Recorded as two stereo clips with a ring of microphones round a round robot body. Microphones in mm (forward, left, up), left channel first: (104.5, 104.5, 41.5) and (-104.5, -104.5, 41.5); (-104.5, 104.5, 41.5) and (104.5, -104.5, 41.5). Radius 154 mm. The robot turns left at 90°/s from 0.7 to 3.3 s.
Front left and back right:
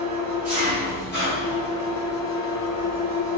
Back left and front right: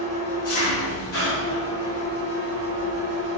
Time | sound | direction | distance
0.0 | an engine running | 165° left | 1.5 m